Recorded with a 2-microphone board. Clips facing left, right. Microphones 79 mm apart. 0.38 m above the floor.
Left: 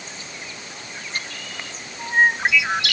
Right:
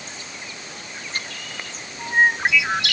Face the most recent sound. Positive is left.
No sound to turn to.